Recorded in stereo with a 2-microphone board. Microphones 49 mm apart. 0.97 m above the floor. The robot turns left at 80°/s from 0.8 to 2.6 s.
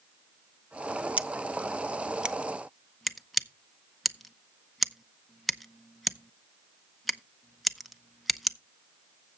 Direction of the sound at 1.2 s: 35° right (ahead or behind).